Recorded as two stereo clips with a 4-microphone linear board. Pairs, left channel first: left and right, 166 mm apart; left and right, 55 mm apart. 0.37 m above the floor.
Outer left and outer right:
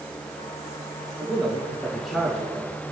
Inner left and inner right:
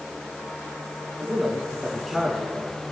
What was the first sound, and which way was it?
A man speaking, centre (ahead or behind).